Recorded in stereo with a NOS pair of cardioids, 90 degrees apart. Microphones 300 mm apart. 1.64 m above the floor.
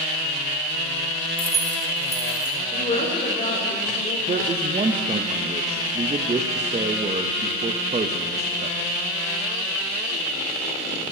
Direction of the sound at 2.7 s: 25° left.